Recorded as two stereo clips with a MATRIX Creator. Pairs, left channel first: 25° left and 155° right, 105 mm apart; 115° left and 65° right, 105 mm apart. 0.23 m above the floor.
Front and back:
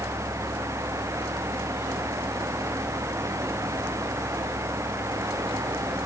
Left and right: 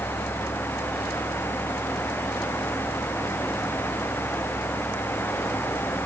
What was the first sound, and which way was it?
Only background noise.